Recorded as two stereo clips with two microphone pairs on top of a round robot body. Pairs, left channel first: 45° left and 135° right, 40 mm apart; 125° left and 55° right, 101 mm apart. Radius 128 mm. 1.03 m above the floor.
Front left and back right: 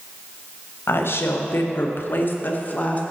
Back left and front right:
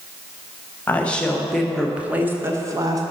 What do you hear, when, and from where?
0.9 s a woman speaking: 50° left, 1.3 m; by 3.0 s 5° right, 1.3 m